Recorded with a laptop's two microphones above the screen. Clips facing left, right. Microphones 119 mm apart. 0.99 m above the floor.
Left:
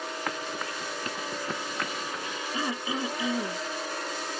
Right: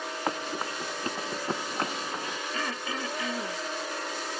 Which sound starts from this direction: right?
Running footsteps, at 0.3 s.